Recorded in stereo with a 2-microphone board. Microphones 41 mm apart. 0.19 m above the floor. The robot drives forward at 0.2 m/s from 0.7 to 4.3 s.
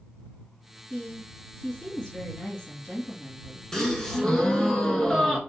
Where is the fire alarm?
No fire alarm in this recording.